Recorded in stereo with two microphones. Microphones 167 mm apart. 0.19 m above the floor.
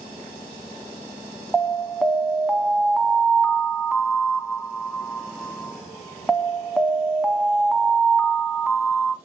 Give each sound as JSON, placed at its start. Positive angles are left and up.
{"t": 1.5, "sound": "an alarm", "side_deg": -5, "distance_m": 1.7}